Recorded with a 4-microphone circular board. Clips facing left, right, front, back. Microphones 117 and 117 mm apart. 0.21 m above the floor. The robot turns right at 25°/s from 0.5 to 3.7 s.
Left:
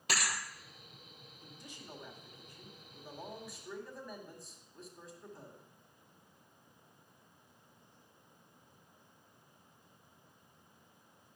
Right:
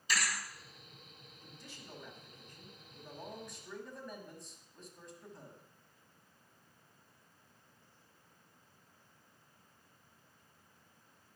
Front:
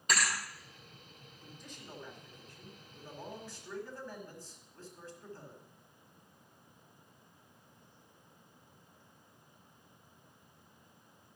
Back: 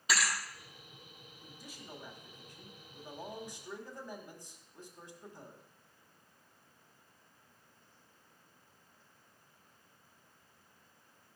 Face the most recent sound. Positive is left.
turn(degrees=175)